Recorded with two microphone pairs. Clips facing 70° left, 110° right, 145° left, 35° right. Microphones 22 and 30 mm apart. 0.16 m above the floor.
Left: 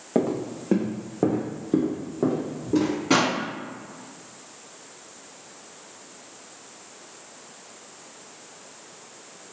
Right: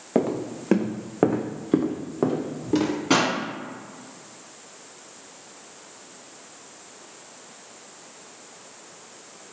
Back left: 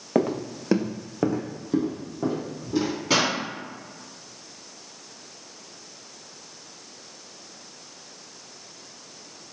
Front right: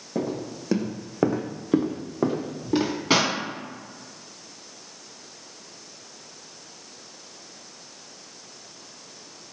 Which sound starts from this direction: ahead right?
A pop, at 3.1 s.